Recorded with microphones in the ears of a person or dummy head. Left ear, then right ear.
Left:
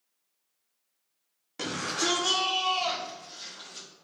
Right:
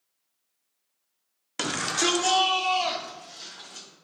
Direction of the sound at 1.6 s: 45° right (ahead or behind).